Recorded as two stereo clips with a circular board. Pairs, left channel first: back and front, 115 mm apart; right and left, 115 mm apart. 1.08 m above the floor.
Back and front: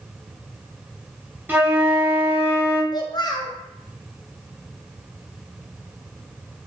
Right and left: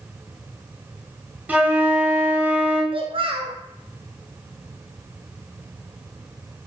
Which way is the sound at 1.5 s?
40° left.